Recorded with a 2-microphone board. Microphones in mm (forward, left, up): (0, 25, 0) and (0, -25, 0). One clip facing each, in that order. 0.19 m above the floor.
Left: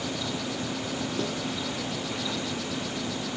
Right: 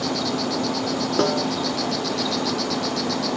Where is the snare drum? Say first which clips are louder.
Right 10 dB; 70° right (ahead or behind).